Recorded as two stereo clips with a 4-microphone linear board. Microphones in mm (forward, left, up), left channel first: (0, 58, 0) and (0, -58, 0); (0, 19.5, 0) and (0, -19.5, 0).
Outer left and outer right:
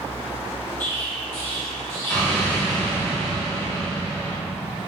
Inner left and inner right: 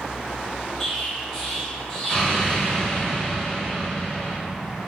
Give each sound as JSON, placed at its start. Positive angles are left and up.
{"t": 0.8, "sound": "an explosion", "side_deg": 20, "distance_m": 1.2}